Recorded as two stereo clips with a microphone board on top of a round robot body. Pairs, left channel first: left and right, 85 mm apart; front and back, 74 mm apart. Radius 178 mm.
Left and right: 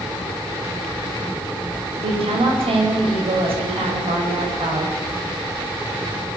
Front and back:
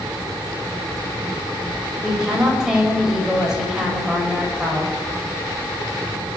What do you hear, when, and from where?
2.0 s a woman speaking: 95° right, 5.5 m